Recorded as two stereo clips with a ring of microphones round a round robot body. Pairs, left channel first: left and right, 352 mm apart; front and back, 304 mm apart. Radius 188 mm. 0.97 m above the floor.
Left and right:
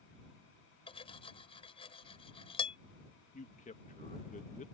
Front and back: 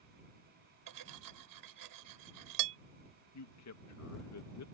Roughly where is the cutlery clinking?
Behind.